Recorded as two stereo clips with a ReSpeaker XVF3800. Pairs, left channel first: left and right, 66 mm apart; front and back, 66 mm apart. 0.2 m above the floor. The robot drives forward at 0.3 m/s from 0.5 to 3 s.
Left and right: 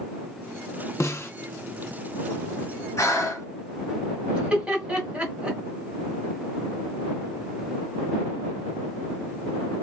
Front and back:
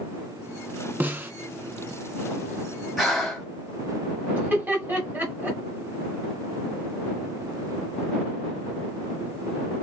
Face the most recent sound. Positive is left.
turn(degrees=-145)